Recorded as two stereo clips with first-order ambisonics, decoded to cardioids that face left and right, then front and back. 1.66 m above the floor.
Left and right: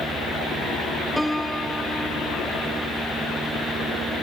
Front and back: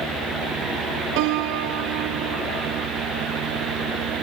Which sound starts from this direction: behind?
A piano, at 1.2 s.